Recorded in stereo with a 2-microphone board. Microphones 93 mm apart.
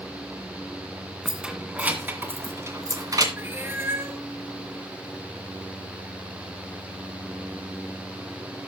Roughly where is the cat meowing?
Right.